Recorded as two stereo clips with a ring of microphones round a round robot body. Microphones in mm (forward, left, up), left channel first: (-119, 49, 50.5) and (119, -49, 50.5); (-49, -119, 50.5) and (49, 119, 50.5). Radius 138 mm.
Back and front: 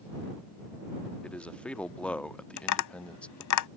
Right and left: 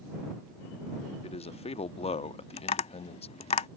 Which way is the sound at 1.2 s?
125° right.